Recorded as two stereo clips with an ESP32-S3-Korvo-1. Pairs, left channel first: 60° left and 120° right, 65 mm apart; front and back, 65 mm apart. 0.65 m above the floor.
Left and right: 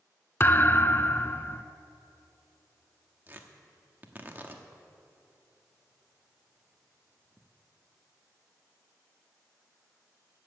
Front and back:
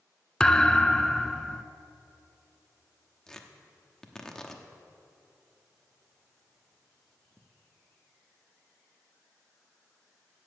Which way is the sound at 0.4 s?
70° left.